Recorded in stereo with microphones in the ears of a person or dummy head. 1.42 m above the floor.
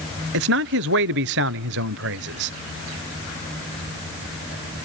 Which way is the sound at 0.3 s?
55° right (ahead or behind).